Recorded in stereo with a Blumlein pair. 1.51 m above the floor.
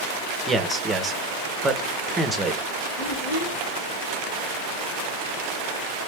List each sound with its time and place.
0.5 s a man speaking: 15° right, 1.0 m
3.0 s a child speaking: 50° left, 1.8 m